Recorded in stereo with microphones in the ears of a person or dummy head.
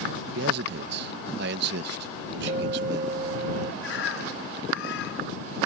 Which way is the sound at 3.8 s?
80° left.